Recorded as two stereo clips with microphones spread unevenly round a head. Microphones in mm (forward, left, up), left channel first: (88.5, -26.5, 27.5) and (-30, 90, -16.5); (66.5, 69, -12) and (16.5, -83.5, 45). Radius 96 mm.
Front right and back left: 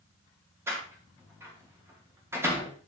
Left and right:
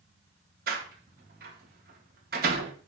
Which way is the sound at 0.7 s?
145° right.